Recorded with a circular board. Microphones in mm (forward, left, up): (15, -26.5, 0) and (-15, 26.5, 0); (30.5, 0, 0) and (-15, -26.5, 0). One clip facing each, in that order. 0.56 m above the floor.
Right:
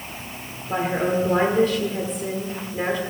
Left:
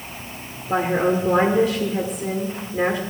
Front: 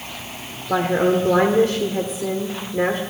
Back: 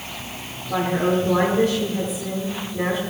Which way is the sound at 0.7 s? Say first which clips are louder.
Left 3 dB, front 3 dB; 45° left.